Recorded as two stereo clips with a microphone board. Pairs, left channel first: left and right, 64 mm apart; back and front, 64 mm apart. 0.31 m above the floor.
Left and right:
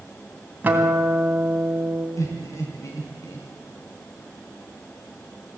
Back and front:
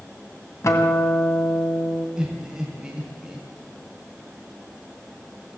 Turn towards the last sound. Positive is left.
turn(degrees=75)